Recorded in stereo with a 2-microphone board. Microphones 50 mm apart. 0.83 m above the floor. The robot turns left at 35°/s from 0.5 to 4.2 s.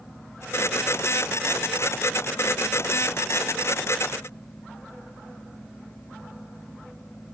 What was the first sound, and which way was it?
Only background noise.